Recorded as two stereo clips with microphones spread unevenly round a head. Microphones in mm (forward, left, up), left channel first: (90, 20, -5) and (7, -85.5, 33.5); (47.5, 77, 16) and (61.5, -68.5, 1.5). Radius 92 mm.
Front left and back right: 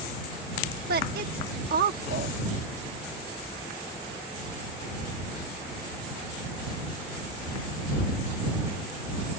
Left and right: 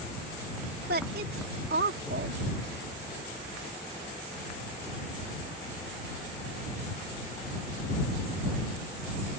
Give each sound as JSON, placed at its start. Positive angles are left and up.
{"t": 0.9, "sound": "a woman speaking", "azimuth_deg": -125}